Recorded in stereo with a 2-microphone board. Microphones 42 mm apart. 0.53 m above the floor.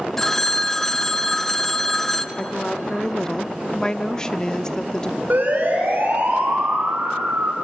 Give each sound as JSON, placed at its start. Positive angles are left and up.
{"t": 0.2, "sound": "a phone ringing", "side_deg": 10, "distance_m": 0.6}
{"t": 2.4, "sound": "a woman speaking", "side_deg": 20, "distance_m": 0.6}
{"t": 5.3, "sound": "a siren", "side_deg": -45, "distance_m": 5.0}